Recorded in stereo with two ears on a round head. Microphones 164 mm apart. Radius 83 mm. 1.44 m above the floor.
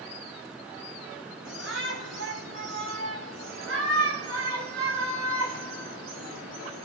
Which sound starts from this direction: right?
A shout, at 1.4 s.